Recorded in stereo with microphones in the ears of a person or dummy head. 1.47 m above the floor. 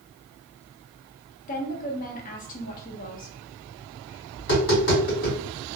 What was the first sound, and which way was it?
A woman speaking, 40° left (ahead or behind).